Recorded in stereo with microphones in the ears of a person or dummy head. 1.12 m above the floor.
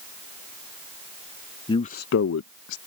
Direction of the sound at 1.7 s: 25° left (ahead or behind).